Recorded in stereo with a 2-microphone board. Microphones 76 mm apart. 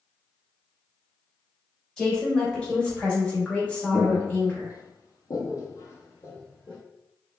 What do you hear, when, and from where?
2.0 s a woman speaking: 10° left (ahead or behind), 1.4 m; by 4.8 s 15° left (ahead or behind), 0.9 m
3.9 s footsteps: 30° left (ahead or behind), 0.7 m; by 6.8 s 25° left (ahead or behind), 1.0 m